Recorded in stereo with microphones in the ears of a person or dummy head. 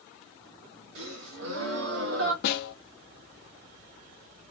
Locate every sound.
0.9 s a gasp: 70° right (ahead or behind), 1.1 m
2.4 s a snare drum: 60° left (ahead or behind), 0.8 m